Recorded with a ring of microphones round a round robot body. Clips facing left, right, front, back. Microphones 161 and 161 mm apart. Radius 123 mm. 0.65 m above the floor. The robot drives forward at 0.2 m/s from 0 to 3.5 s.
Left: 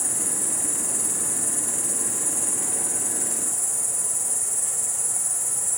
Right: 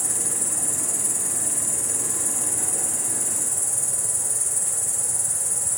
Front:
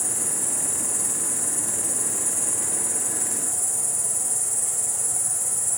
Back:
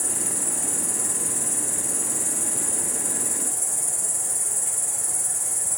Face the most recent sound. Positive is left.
turn(degrees=-145)